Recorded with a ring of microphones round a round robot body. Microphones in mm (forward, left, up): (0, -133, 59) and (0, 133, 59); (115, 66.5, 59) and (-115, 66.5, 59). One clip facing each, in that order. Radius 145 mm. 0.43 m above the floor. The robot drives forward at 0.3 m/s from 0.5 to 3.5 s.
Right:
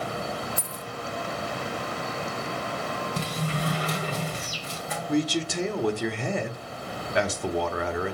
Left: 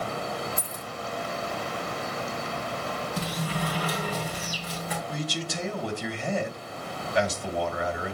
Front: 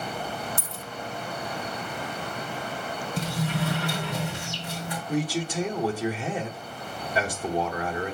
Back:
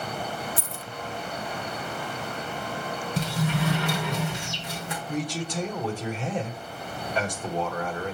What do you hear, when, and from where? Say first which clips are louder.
0.6 s a dropped coin: right 1 dB, back 1 dB; 170° right, 0.8 m
3.2 s a sliding door: even, back 2 dB; 155° right, 2.5 m
5.1 s a man speaking: right 13 dB, front 3 dB; 80° right, 1.6 m